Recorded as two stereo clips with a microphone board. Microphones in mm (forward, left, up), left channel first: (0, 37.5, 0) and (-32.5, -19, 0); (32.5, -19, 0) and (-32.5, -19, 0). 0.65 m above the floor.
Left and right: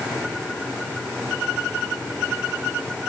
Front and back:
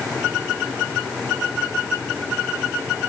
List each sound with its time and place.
Only background noise.